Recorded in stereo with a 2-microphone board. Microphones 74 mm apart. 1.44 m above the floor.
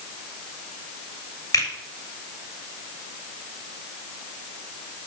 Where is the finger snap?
60° left (ahead or behind), 3.5 m.